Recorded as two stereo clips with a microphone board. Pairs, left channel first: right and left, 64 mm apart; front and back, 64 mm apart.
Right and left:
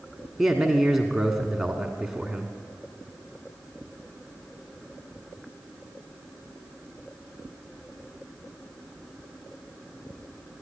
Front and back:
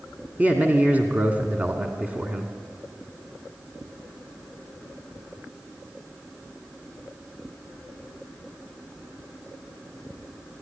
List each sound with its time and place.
0.4 s a man speaking: 170° left, 1.5 m